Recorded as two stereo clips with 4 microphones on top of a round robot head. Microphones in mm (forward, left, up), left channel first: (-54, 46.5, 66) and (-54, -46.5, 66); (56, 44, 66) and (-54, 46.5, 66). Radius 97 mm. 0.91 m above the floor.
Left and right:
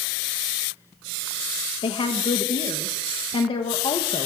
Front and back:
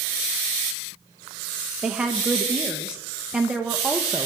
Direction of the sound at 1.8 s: 95° left.